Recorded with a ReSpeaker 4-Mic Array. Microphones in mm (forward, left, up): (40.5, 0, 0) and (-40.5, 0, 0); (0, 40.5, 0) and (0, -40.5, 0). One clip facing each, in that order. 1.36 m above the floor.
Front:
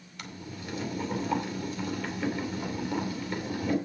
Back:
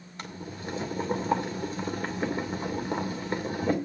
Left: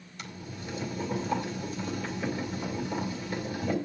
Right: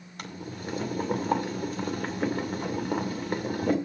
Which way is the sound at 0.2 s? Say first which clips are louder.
Back 3 dB, right 4 dB; 125° right.